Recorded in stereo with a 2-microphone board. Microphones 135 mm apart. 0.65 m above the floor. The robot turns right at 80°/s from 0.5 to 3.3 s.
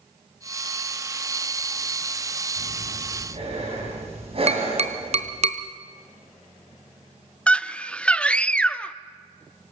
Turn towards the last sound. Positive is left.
turn(degrees=10)  # may be behind; listen again after turning